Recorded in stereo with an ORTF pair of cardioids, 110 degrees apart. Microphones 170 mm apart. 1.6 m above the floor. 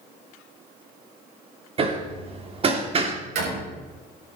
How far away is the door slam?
About 7 m.